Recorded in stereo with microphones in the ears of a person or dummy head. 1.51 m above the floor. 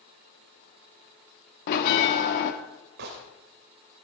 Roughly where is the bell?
Left.